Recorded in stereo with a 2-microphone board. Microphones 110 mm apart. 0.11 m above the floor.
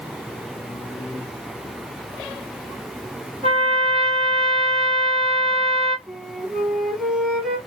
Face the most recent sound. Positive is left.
turn(degrees=-5)  # may be behind; listen again after turning